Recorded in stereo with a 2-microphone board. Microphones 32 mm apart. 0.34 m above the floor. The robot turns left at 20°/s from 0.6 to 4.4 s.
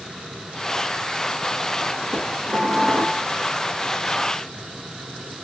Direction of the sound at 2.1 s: 25° right (ahead or behind).